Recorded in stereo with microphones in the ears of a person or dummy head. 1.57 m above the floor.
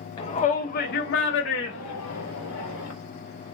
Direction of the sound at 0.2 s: 30° left (ahead or behind).